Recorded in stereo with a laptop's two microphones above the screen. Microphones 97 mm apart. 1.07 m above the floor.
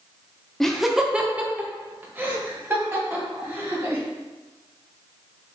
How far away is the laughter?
About 0.6 m.